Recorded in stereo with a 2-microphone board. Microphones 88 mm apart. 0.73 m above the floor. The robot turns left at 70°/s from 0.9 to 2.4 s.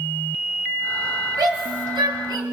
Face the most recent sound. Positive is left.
turn(degrees=-45)  # may be behind; listen again after turning